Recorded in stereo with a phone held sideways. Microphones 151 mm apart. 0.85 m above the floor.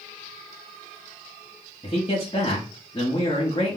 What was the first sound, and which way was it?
A man speaking, 35° left (ahead or behind).